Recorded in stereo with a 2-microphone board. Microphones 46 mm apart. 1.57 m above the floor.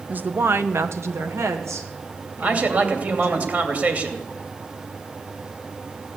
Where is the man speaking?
40° right (ahead or behind), 2.5 m.